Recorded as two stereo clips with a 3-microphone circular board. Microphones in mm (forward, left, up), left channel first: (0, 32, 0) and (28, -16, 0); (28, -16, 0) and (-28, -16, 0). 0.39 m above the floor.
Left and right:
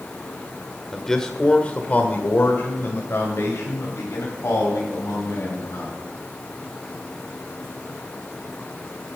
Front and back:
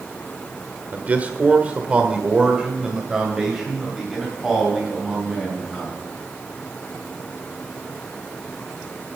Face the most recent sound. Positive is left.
turn(degrees=90)